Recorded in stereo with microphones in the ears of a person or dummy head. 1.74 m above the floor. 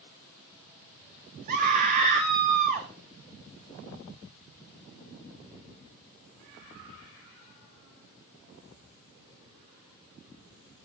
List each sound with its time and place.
1.5 s a scream: 50° right (ahead or behind), 1.0 m